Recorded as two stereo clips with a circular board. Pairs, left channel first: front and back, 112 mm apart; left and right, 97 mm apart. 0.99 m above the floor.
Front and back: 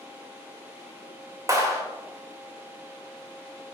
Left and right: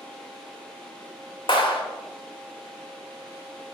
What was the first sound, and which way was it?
A clap, 120° left.